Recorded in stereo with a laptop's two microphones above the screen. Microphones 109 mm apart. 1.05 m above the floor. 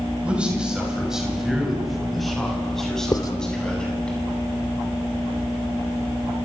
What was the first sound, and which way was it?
A man speaking, 10° right (ahead or behind).